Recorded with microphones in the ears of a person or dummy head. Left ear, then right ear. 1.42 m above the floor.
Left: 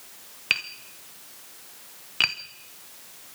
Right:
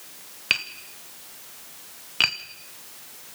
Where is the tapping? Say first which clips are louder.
Right 1 dB; centre (ahead or behind), 0.8 m.